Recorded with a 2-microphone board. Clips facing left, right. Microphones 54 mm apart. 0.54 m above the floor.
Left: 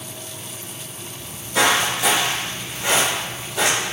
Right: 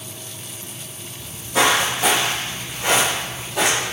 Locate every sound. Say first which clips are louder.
1.2 s footsteps: right 1 dB; 25° right (ahead or behind), 1.5 m; by 3.9 s 60° right (ahead or behind), 1.2 m